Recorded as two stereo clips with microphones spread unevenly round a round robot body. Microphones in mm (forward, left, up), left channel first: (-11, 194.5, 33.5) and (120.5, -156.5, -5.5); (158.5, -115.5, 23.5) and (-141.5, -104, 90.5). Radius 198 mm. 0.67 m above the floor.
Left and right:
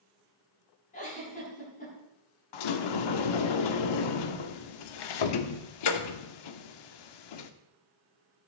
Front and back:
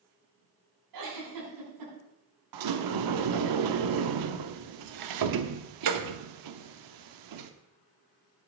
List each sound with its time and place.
0.9 s a giggle: 175° right, 7.5 m
2.5 s a sliding door: 145° left, 0.8 m